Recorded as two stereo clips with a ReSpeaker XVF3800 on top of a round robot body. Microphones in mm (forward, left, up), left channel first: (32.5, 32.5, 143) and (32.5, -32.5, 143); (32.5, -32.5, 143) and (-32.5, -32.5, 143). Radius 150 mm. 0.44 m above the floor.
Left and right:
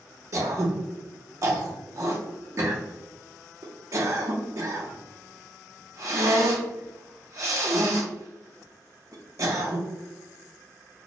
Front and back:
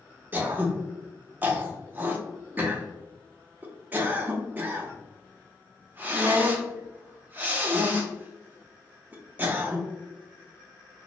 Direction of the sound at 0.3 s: 120° right.